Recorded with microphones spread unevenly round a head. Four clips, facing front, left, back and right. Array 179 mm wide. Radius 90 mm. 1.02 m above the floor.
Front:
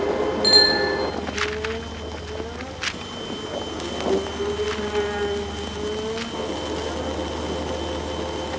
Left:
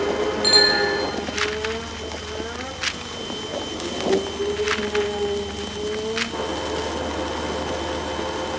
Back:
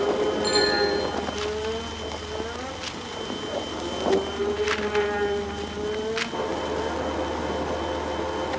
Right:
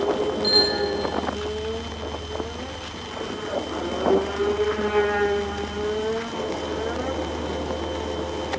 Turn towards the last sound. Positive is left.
turn(degrees=20)